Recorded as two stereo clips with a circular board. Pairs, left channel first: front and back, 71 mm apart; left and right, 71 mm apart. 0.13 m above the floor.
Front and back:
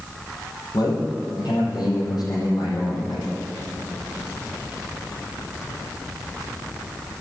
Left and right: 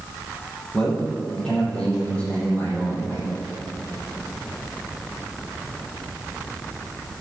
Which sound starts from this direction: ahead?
A man speaking, at 0.7 s.